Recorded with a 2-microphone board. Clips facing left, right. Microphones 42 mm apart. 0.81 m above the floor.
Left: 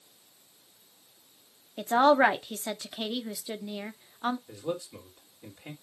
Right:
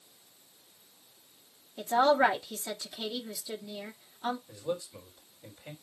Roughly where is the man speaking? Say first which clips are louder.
Left 1 dB; left.